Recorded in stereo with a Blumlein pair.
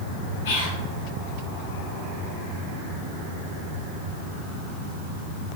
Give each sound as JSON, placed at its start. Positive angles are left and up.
{"t": 0.5, "sound": "whispering", "azimuth_deg": 55, "distance_m": 1.4}